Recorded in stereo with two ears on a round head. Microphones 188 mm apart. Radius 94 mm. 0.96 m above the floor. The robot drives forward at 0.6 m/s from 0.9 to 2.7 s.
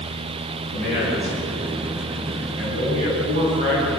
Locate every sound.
0.7 s a man speaking: 35° right (ahead or behind), 8.5 m; by 4.0 s 40° right (ahead or behind), 8 m